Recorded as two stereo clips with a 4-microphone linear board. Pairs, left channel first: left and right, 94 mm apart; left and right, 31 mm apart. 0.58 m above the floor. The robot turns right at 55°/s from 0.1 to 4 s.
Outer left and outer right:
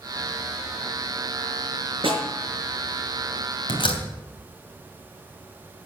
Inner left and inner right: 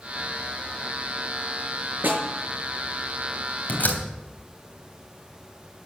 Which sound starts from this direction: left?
A door slam, at 3.7 s.